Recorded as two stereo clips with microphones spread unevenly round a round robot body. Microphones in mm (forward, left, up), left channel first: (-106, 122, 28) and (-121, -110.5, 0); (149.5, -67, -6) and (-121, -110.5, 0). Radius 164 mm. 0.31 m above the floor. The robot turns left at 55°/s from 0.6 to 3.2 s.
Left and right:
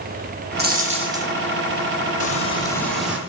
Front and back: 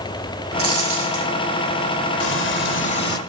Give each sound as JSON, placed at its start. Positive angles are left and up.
{"t": 0.6, "sound": "a dropped coin", "azimuth_deg": -135, "distance_m": 6.0}
{"t": 2.2, "sound": "frying", "azimuth_deg": 35, "distance_m": 1.3}